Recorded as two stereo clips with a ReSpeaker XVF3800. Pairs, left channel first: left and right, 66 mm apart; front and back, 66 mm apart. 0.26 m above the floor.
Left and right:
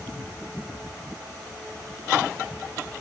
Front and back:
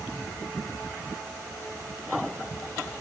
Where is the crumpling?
I don't hear crumpling.